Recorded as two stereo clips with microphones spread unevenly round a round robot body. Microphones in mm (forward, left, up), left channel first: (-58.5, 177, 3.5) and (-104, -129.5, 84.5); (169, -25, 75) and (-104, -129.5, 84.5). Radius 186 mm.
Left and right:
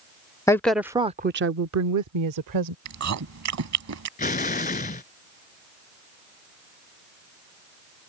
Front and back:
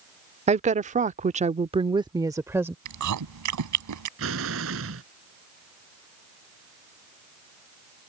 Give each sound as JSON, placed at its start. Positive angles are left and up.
{"t": 0.5, "sound": "a woman speaking", "azimuth_deg": 140}
{"t": 2.9, "sound": "chewing", "azimuth_deg": -140}
{"t": 4.2, "sound": "an explosion", "azimuth_deg": 150}